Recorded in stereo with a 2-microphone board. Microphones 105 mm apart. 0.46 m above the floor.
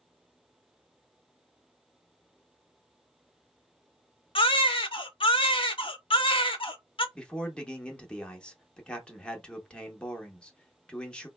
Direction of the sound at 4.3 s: 55° left (ahead or behind).